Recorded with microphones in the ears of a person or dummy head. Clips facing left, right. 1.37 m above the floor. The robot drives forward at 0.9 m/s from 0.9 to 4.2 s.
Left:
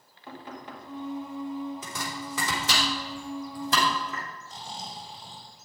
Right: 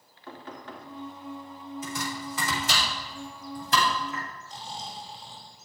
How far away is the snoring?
About 4 m.